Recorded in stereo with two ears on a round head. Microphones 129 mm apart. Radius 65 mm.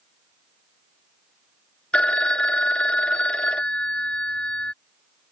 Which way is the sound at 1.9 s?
10° left (ahead or behind).